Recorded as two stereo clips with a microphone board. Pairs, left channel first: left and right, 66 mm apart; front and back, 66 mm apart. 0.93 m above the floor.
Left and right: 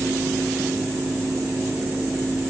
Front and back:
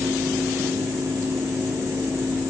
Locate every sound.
Only background noise.